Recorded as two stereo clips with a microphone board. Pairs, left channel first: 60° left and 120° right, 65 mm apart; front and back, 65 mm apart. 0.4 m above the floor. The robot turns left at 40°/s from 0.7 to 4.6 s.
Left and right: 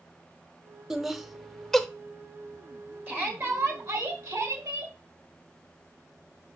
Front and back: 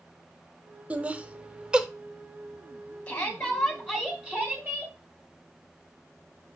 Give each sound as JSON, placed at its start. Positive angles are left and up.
{"t": 0.9, "sound": "laughter", "azimuth_deg": 170, "distance_m": 0.8}
{"t": 3.1, "sound": "a shout", "azimuth_deg": -65, "distance_m": 3.5}